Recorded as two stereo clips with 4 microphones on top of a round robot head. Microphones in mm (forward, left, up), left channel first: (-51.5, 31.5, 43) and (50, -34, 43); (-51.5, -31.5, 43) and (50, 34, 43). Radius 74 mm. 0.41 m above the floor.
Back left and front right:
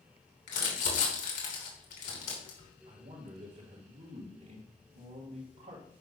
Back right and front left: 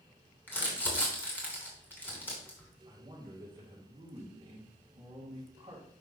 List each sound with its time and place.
0.5 s crumpling: 140° left, 3 m
2.9 s a man speaking: 35° right, 3 m